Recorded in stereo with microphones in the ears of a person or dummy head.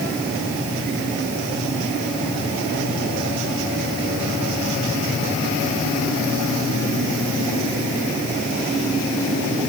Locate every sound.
Only background noise.